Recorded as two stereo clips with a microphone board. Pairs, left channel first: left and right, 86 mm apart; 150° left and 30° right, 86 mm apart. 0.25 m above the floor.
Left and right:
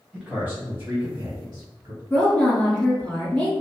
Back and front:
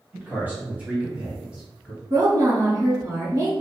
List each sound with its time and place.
0.1 s a man speaking: 30° right, 0.9 m; by 2.0 s 115° right, 1.5 m
2.1 s a woman speaking: 5° left, 2.0 m